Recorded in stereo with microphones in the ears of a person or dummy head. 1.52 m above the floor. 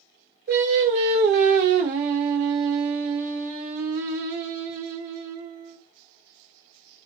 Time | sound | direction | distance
0.5 | singing | 35° right (ahead or behind) | 0.5 m